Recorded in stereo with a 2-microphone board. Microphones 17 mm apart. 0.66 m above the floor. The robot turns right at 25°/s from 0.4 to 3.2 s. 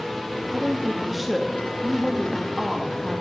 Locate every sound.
0.5 s a woman speaking: 10° right (ahead or behind), 0.9 m; by 3.2 s 15° left (ahead or behind), 0.9 m